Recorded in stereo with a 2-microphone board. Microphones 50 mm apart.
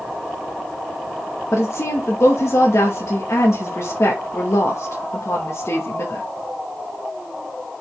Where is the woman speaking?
75° left (ahead or behind), 1.9 m.